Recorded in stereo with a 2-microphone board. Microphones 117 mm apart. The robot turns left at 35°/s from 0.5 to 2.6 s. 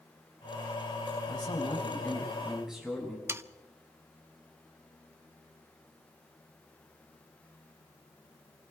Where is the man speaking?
45° left, 6.5 m; by 3.2 s 5° right, 6.5 m.